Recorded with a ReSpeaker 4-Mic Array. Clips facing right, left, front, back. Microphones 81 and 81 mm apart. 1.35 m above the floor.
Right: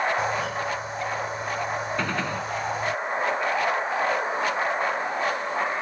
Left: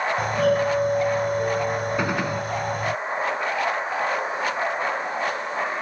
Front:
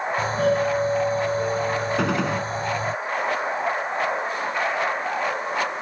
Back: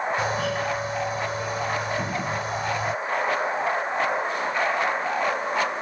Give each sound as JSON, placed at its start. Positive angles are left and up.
{"t": 0.2, "sound": "a doorbell", "azimuth_deg": 55}
{"t": 2.0, "sound": "a gunshot", "azimuth_deg": 15}